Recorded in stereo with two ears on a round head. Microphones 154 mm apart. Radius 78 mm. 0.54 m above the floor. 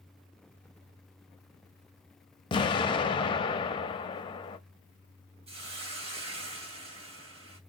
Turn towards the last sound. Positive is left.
turn(degrees=-35)  # may be behind; listen again after turning